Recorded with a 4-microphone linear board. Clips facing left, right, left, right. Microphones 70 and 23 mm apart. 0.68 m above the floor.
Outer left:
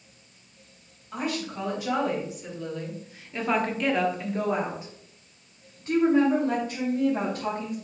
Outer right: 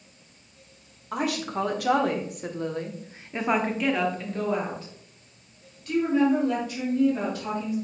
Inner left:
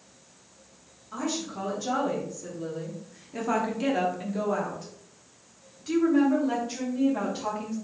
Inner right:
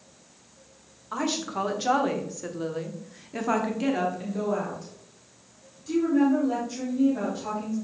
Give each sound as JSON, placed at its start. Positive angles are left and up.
{"t": 1.1, "sound": "a woman speaking", "side_deg": -75, "distance_m": 1.8}